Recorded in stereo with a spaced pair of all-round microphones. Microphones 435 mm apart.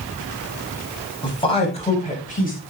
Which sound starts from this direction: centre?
A man speaking, at 1.2 s.